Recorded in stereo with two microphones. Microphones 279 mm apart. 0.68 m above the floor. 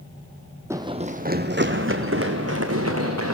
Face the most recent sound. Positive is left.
turn(degrees=-60)  # may be behind; listen again after turning